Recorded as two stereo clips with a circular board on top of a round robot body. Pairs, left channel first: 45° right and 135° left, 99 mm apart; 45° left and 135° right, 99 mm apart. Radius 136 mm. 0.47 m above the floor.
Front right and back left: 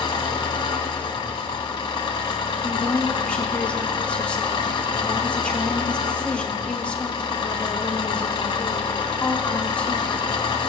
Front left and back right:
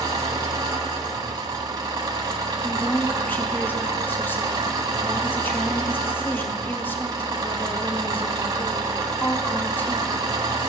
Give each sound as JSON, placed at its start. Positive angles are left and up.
{"t": 0.0, "sound": "an engine running", "azimuth_deg": -90, "distance_m": 0.9}
{"t": 2.6, "sound": "a woman speaking", "azimuth_deg": 15, "distance_m": 0.9}